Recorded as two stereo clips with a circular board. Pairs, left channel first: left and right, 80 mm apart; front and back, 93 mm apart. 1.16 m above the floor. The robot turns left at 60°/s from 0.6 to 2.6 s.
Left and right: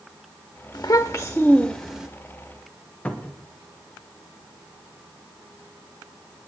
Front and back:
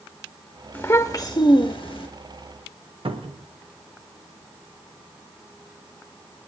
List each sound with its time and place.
0.7 s a child speaking: 60° left, 0.9 m; by 2.1 s 20° right, 0.9 m
3.0 s a cupboard door: 165° left, 1.2 m